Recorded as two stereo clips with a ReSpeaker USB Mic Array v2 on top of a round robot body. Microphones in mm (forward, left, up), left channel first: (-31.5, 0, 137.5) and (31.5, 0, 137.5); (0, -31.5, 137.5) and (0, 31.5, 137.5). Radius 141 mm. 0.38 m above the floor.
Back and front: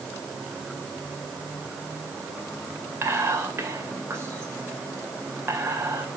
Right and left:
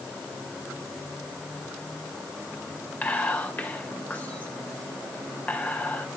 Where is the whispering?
40° right, 2 m.